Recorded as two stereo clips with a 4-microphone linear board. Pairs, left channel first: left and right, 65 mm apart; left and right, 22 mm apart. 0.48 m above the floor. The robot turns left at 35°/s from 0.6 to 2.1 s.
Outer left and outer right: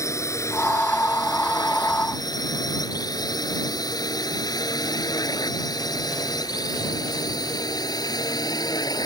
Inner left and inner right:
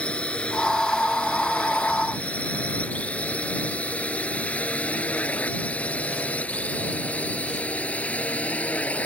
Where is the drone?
50° left (ahead or behind); by 9.1 s 80° left.